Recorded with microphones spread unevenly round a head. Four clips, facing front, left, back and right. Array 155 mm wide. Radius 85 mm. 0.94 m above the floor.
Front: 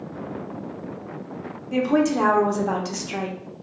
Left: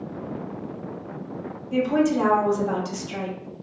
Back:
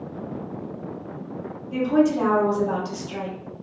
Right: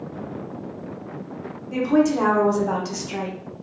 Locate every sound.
1.7 s a woman speaking: 20° right, 0.8 m